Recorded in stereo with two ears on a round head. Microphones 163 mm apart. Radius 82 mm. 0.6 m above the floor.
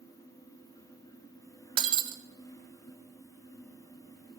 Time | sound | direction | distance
1.8 | breaking glass | 25° right (ahead or behind) | 0.5 m